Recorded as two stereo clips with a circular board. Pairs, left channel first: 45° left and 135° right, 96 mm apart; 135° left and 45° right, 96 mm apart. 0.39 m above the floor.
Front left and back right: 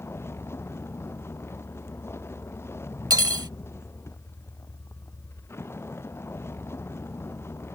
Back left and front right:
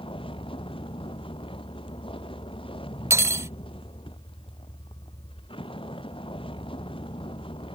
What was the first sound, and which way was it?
A vehicle, 110° left.